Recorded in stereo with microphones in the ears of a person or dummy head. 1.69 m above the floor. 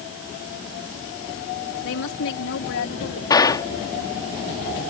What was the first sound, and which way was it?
A woman speaking, 75° left (ahead or behind).